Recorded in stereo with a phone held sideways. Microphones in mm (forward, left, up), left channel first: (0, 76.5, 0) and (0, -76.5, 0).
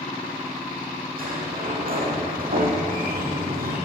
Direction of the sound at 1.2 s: 70° right (ahead or behind).